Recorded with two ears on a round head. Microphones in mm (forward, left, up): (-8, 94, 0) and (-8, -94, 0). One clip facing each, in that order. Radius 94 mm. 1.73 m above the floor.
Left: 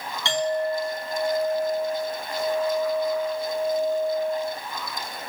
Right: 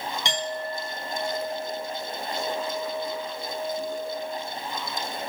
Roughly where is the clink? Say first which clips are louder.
Left 10 dB; centre.